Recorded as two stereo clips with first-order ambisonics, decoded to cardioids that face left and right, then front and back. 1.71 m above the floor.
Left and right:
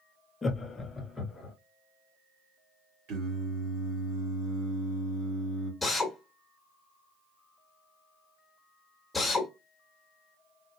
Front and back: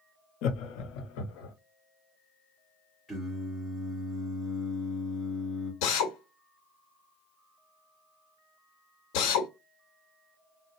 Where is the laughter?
15° left, 0.6 m; by 1.5 s 10° left, 1.2 m.